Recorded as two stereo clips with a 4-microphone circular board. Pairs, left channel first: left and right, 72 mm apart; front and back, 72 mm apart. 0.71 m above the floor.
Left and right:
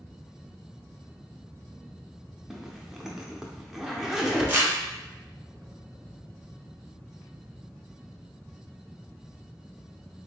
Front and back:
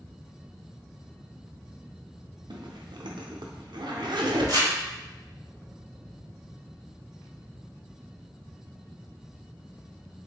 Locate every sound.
2.5 s a zipper: 175° right, 0.6 m
4.5 s crumpling: 150° right, 1.6 m